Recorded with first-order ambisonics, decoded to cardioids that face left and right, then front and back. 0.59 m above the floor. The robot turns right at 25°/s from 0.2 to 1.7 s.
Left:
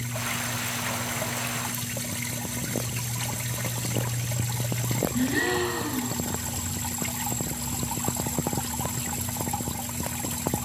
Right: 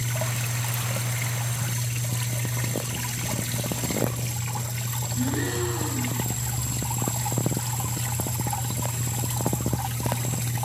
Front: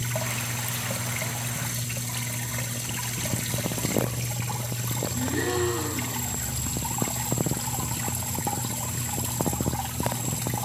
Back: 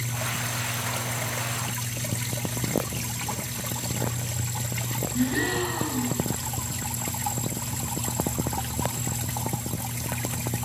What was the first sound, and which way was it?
A gasp, 115° left.